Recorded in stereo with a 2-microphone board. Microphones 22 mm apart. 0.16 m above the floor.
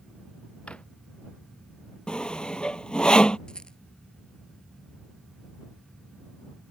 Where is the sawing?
55° left (ahead or behind).